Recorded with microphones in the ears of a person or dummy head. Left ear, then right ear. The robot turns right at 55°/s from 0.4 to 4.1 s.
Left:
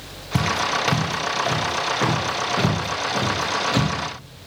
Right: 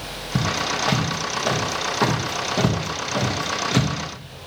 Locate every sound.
0.3 s footsteps: 50° left (ahead or behind), 1.8 m; by 3.9 s 5° left (ahead or behind), 1.5 m